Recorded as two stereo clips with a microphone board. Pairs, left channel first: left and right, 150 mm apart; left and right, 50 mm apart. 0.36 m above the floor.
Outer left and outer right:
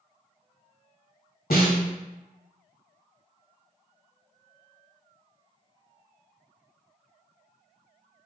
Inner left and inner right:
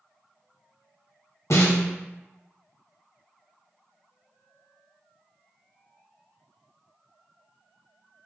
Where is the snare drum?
75° left (ahead or behind), 1.1 m.